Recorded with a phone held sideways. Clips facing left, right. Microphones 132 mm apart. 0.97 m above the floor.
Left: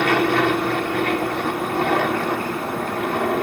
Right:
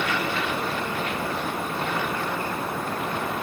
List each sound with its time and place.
0.0 s an aircraft: 65° left (ahead or behind)